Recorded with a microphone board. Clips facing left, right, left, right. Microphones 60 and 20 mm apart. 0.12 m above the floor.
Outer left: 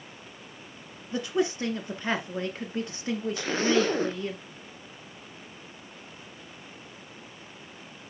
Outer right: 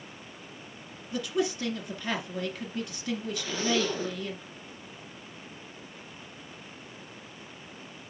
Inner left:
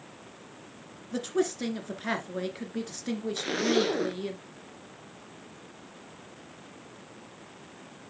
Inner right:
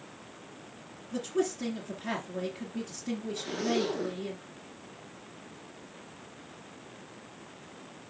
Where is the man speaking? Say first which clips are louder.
Outer left 2 dB, inner left 2 dB; 30° left (ahead or behind), 1.8 m.